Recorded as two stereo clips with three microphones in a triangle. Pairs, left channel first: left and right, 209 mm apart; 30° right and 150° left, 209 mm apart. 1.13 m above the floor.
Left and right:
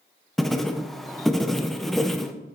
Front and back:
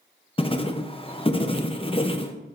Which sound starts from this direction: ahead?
Writing, at 0.4 s.